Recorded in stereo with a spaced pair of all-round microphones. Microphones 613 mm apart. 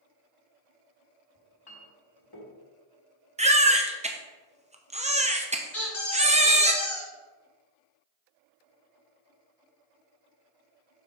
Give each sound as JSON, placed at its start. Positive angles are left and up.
{"t": 1.4, "sound": "a clink", "side_deg": 40, "distance_m": 1.6}
{"t": 3.4, "sound": "a baby crying", "side_deg": -10, "distance_m": 0.7}
{"t": 5.7, "sound": "a squeak", "side_deg": 50, "distance_m": 3.0}